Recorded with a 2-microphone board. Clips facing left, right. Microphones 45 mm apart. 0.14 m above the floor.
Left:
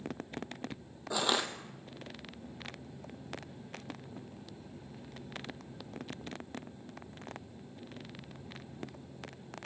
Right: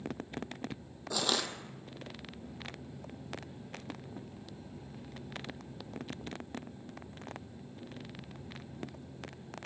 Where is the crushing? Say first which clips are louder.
Left 2 dB; 15° left (ahead or behind), 0.8 m.